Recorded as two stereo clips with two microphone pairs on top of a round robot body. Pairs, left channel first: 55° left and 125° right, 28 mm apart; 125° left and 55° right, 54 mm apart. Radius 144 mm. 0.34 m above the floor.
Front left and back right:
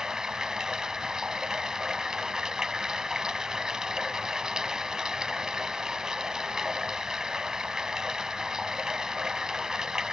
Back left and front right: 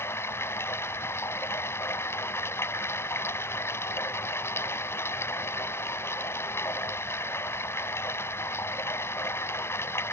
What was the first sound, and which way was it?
Running water, 165° left.